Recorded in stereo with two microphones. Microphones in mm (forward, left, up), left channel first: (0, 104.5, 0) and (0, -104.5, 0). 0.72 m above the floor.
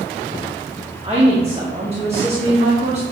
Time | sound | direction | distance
1.0 | a woman speaking | 30° right (ahead or behind) | 1.1 m